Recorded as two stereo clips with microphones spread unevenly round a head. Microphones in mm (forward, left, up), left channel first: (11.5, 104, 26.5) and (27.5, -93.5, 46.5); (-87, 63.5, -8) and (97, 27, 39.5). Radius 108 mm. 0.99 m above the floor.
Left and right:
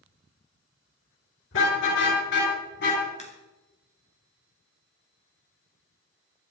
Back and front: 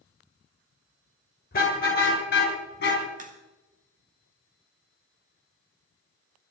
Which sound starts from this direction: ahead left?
A crack, at 3.2 s.